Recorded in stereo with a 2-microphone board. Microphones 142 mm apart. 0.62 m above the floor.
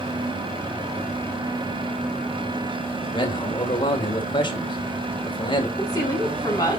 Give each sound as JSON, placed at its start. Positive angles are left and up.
{"t": 3.1, "sound": "a man speaking", "side_deg": 35, "distance_m": 2.5}
{"t": 5.8, "sound": "a woman speaking", "side_deg": 25, "distance_m": 5.5}